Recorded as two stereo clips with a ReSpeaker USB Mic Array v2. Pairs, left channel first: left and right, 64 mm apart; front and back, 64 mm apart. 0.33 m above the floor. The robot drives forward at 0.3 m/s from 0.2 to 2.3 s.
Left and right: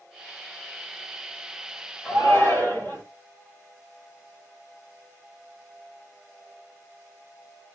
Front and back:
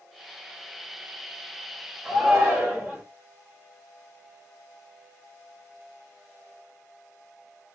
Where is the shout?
105° left, 1.7 m; by 3.0 s 110° left, 1.7 m.